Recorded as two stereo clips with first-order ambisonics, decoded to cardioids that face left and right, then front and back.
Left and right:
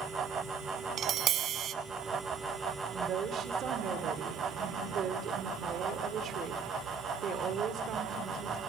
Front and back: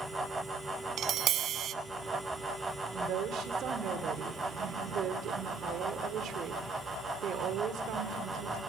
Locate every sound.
1.0 s tapping: 135° right, 0.8 m
2.9 s a woman speaking: 140° right, 1.9 m